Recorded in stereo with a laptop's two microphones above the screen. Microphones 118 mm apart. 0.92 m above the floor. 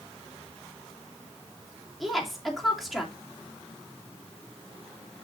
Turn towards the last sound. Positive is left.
turn(degrees=0)  # may be behind; listen again after turning